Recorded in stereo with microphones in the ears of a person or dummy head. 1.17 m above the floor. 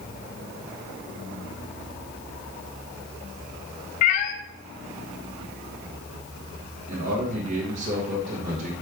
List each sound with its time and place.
4.0 s a cat meowing: 50° left (ahead or behind), 0.6 m
6.9 s a man speaking: 45° right (ahead or behind), 1.5 m